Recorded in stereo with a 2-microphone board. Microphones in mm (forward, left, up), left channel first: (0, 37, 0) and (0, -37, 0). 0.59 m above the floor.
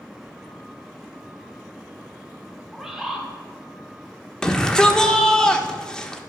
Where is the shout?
10° left (ahead or behind), 1.1 m.